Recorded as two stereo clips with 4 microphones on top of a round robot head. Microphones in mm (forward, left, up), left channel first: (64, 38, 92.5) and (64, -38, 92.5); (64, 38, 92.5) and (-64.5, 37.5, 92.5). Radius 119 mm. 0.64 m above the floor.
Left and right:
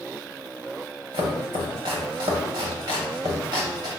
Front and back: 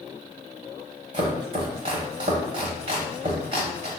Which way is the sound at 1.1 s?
125° right.